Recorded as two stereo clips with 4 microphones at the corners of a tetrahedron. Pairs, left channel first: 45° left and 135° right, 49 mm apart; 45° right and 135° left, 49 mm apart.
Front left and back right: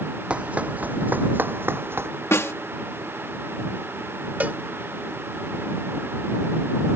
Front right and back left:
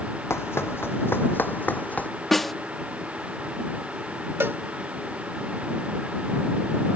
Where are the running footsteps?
70° right; by 2.1 s 100° right.